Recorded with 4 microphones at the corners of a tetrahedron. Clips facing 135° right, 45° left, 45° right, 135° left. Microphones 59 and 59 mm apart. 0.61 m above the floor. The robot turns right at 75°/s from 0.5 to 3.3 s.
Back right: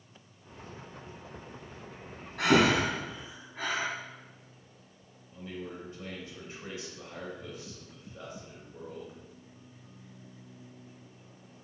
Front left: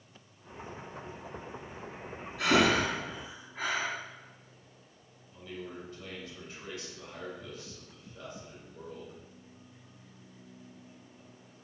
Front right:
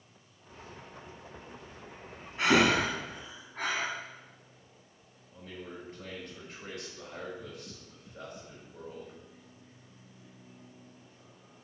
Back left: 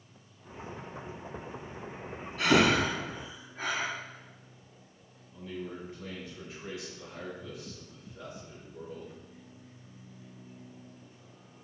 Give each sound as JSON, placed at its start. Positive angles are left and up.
{"t": 2.4, "sound": "breathing", "azimuth_deg": -110, "distance_m": 2.5}
{"t": 5.3, "sound": "a man speaking", "azimuth_deg": -70, "distance_m": 3.0}